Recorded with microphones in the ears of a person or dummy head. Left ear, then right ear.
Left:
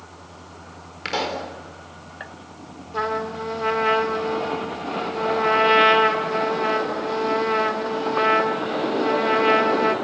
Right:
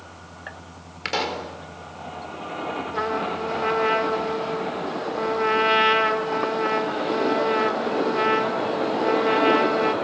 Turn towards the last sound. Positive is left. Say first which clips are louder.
# left 2 dB
turn(degrees=5)  # may be behind; listen again after turning